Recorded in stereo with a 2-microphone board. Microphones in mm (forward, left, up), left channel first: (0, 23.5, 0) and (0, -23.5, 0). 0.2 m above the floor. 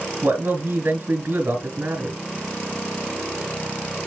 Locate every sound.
0.2 s a man speaking: 55° right (ahead or behind), 2.5 m